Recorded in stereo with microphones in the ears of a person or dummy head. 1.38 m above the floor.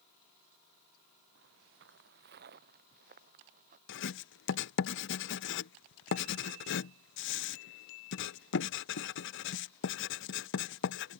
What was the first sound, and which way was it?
Footsteps, 65° right (ahead or behind).